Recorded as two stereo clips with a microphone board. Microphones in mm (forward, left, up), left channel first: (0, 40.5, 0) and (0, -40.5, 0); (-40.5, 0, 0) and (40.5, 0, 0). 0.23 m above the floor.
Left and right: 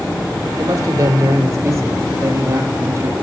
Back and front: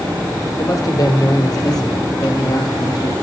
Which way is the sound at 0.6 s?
140° right.